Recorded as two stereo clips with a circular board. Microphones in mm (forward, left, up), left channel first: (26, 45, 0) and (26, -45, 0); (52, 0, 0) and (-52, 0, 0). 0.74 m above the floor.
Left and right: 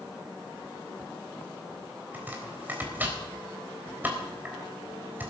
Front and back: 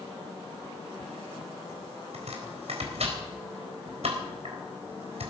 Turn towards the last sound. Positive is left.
turn(degrees=-160)